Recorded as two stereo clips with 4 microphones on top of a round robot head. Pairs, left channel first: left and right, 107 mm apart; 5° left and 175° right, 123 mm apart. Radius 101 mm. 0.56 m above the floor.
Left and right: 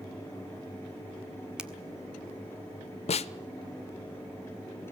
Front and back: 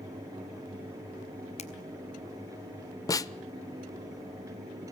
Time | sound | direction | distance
1.6 | a finger snap | 10° right | 1.7 m
3.1 | a snare drum | 65° left | 0.6 m